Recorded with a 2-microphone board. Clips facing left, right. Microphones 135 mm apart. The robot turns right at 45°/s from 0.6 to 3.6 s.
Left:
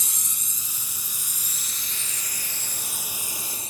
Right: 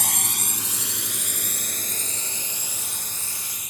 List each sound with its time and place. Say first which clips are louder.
0.0 s a drone: right 12 dB; 70° right (ahead or behind); by 3.7 s 30° left (ahead or behind)